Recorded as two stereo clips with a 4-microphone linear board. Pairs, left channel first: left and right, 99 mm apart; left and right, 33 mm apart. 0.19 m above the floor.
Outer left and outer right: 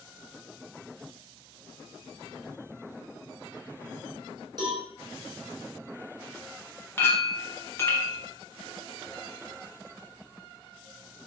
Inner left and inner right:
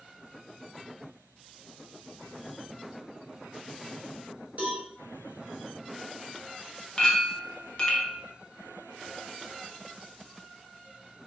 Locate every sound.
4.6 s a cowbell: 45° right (ahead or behind), 1.1 m
7.0 s a clink: 25° left (ahead or behind), 0.6 m